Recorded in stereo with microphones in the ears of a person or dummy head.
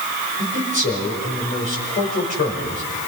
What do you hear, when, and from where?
0.4 s a man speaking: 40° left (ahead or behind), 5.5 m